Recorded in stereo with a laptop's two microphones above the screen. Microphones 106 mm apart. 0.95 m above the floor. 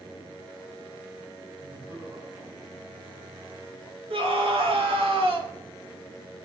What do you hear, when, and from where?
1.6 s laughter: 40° right (ahead or behind), 6.5 m; by 4.0 s 30° right (ahead or behind), 8.5 m
4.1 s a scream: 65° right (ahead or behind), 3 m